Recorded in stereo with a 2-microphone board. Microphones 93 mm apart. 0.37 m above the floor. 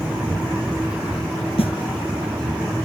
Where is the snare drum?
70° left (ahead or behind).